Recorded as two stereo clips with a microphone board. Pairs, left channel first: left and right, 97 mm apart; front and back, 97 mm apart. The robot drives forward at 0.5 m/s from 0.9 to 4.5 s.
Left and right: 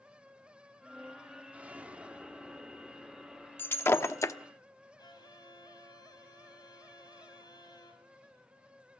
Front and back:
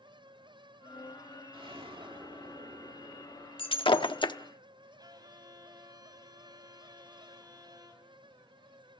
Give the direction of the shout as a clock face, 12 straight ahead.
No shout in this recording.